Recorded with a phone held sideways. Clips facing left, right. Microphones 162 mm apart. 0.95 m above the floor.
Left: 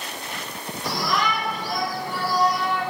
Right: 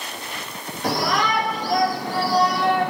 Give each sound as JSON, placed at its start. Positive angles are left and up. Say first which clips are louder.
{"t": 0.8, "sound": "a shout", "louder": "right 3 dB", "side_deg": -80, "distance_m": 4.0}